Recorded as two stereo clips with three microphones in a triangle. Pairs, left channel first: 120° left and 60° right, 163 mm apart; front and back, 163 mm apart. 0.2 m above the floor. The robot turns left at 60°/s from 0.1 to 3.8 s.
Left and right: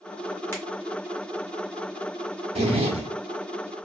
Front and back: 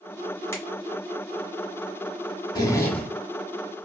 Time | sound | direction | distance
0.5 | a finger snap | 60° left | 1.5 m
2.5 | a zipper | 50° right | 0.8 m